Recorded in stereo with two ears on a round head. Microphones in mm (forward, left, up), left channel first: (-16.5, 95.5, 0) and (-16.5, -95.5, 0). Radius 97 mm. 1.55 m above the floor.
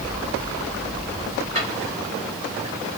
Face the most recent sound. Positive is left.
turn(degrees=-35)  # may be behind; listen again after turning